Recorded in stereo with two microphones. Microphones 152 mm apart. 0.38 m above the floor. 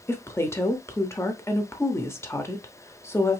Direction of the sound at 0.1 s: 15° left (ahead or behind).